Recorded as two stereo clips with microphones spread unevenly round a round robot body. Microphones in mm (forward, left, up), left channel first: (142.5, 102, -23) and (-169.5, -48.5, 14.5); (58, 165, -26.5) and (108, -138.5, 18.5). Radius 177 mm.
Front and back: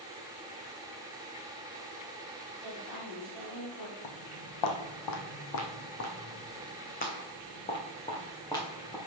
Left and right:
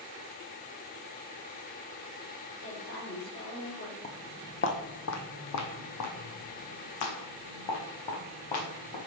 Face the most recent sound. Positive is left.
turn(degrees=110)